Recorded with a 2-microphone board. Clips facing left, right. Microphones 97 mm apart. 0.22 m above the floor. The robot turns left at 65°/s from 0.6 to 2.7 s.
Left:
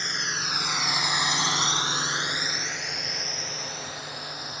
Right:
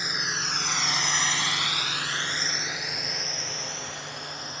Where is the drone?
5° right (ahead or behind); by 4.6 s 5° left (ahead or behind).